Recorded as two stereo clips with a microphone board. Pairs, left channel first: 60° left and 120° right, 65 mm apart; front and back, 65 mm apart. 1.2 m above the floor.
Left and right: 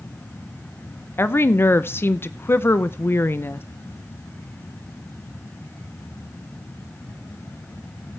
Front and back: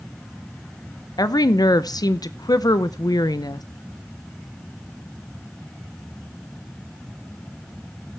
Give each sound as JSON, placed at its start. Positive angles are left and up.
{"t": 1.2, "sound": "a woman speaking", "azimuth_deg": 10, "distance_m": 0.6}